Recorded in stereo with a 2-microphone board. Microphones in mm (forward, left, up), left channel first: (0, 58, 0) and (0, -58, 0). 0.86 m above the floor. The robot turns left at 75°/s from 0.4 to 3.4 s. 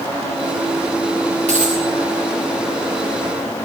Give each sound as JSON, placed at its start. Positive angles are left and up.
{"t": 1.5, "sound": "a dropped coin", "side_deg": -85, "distance_m": 8.0}